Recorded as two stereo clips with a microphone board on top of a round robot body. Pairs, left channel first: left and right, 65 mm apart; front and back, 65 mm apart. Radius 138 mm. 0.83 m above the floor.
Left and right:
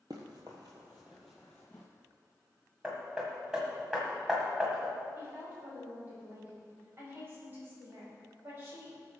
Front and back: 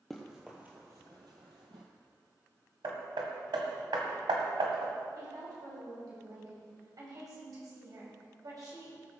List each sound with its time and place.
0.1 s running footsteps: 85° right, 0.9 m; by 1.9 s 160° left, 1.1 m
2.8 s hammering: 170° right, 1.6 m
5.2 s a woman speaking: 150° right, 5 m